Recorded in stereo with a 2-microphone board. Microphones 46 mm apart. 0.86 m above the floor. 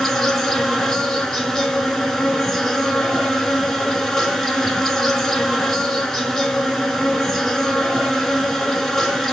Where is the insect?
5° left (ahead or behind), 0.8 m.